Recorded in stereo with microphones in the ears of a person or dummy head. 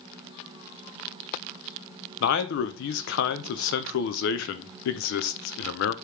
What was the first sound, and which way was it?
A man speaking, 70° left (ahead or behind).